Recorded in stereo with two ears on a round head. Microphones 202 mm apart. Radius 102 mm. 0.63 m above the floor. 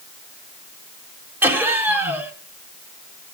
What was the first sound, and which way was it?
Laughter, 10° right (ahead or behind).